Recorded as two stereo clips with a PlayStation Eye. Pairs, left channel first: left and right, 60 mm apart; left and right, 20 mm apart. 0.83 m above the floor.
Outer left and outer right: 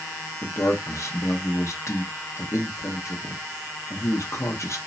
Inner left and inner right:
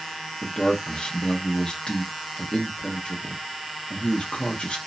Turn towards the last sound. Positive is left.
turn(degrees=50)  # may be behind; listen again after turning